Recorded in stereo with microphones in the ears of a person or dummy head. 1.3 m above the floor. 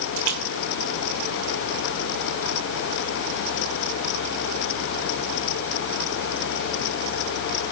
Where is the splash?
80° right, 3 m.